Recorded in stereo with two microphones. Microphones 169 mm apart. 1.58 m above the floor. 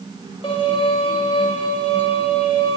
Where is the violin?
30° left (ahead or behind), 1.0 m.